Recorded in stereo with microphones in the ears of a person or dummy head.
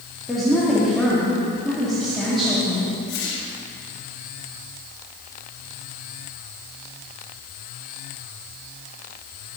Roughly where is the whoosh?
Left.